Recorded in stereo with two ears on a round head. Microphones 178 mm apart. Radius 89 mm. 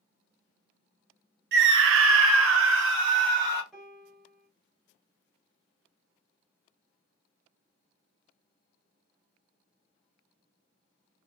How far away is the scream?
About 0.6 m.